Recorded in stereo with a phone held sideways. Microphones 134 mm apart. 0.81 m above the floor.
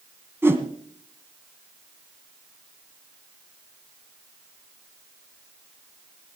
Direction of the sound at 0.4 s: 15° right (ahead or behind).